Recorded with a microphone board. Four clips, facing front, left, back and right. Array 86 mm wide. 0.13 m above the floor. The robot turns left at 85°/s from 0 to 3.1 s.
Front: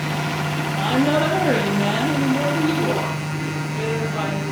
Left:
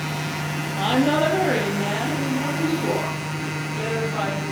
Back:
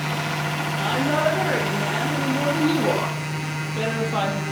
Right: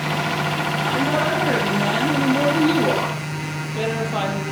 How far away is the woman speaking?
About 4.5 m.